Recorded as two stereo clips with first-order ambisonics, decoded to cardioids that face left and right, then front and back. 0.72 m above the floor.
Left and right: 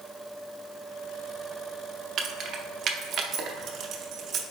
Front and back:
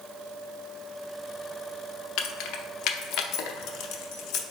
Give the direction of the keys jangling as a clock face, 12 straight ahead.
1 o'clock.